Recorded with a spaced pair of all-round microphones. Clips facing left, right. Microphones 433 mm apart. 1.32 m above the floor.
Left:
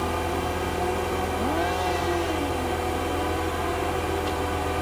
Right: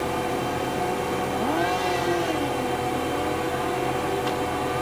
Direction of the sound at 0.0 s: 65° right (ahead or behind).